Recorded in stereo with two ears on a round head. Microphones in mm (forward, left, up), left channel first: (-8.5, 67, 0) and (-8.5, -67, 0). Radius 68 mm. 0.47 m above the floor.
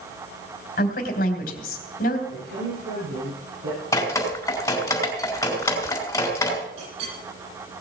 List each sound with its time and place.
0.8 s a woman speaking: 65° left (ahead or behind), 3 m
2.3 s a woman speaking: 80° right, 8.5 m
3.9 s dripping: 20° left (ahead or behind), 4.5 m
6.8 s a clink: 80° right, 10 m